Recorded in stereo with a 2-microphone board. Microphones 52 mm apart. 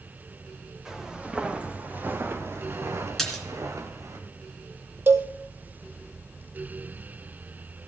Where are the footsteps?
10° right (ahead or behind), 3 m; by 4.2 s 85° right, 3 m.